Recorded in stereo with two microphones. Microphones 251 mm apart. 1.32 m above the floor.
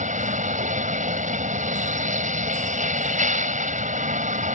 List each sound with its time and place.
0.0 s a vehicle: 30° right (ahead or behind)